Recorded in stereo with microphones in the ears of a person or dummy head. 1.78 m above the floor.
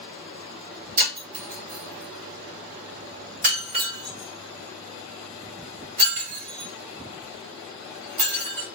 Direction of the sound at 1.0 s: 50° right (ahead or behind).